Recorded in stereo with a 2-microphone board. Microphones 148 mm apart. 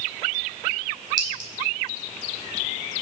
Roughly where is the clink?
Right.